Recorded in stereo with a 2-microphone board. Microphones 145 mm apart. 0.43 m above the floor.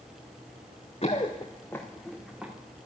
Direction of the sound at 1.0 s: 40° left (ahead or behind).